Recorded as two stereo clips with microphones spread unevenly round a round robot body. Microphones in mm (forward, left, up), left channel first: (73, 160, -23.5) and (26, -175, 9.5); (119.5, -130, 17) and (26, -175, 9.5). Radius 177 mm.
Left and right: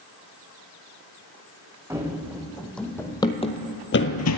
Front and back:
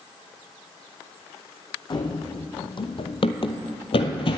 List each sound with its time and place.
1.9 s running footsteps: 20° right, 1.5 m; by 4.4 s 45° left, 0.7 m